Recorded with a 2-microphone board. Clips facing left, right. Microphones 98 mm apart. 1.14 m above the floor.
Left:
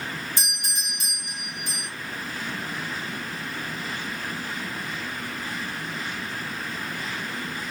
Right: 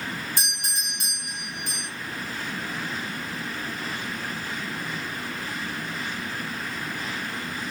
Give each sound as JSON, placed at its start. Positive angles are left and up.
{"t": 0.4, "sound": "a doorbell", "side_deg": -60, "distance_m": 1.8}